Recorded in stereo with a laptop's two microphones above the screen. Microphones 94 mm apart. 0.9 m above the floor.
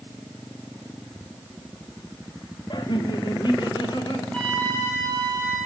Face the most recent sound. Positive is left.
turn(degrees=15)  # may be behind; listen again after turning